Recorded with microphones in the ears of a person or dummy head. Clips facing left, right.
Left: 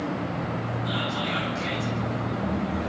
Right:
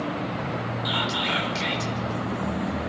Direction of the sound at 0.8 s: 80° right.